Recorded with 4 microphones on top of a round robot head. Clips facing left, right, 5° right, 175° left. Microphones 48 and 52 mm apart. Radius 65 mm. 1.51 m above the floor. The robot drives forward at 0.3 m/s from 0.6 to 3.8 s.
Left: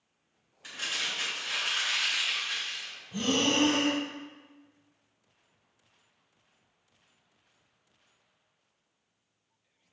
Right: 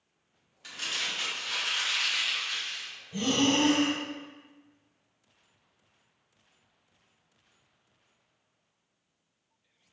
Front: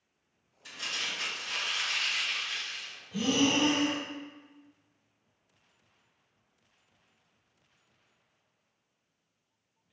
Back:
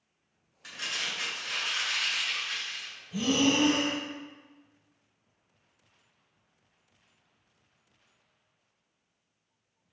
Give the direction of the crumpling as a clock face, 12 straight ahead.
7 o'clock.